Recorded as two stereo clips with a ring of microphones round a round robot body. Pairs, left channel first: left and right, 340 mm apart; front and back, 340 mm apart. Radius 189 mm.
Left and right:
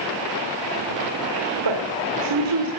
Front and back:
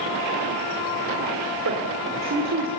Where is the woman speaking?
120° right, 2.5 m.